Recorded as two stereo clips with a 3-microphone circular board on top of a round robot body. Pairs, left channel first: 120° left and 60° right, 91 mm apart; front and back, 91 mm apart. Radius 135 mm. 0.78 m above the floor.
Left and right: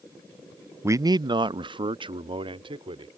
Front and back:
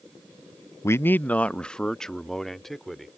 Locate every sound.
0.8 s a man speaking: 25° right; by 3.1 s 90° right